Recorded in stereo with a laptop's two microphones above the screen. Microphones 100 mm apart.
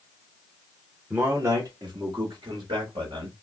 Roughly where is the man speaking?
Centre.